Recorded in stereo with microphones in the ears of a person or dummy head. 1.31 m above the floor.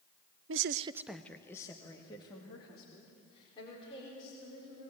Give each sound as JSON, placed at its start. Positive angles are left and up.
{"t": 0.5, "sound": "a woman speaking", "side_deg": -65, "distance_m": 0.6}